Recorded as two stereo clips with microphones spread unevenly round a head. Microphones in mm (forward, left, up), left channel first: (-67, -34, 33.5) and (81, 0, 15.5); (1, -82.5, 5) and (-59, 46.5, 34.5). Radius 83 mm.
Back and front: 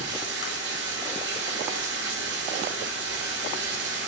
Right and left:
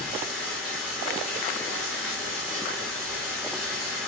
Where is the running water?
25° left, 4 m.